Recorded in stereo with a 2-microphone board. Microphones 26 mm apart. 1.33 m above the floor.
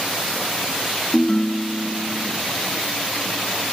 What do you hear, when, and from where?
1.1 s a ringtone: 25° left (ahead or behind), 0.8 m